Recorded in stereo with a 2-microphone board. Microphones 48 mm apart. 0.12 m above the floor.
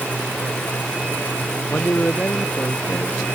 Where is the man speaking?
35° left (ahead or behind).